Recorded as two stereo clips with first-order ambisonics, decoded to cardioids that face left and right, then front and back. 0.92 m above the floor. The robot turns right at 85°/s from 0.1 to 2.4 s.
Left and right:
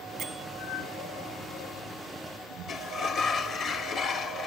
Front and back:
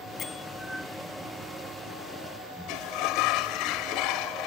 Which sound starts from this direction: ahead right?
A bell, at 0.2 s.